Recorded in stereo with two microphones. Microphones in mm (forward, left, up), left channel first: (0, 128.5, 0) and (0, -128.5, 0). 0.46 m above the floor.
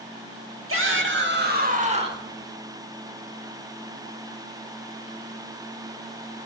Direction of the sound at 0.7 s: 55° right (ahead or behind).